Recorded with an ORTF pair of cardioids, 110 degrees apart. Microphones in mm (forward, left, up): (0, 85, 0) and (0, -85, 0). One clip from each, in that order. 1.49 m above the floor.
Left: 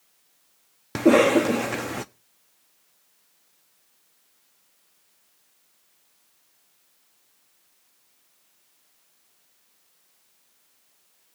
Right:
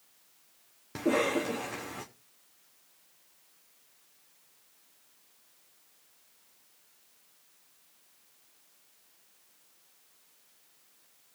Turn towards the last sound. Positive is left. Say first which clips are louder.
# left 11 dB
turn(degrees=50)